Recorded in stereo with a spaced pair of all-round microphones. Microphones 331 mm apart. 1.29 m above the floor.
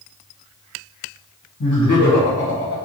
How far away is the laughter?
About 1.2 m.